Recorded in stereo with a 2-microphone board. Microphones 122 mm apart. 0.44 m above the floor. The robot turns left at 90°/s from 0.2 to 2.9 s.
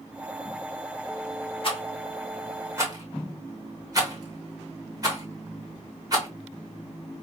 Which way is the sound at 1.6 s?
50° left (ahead or behind).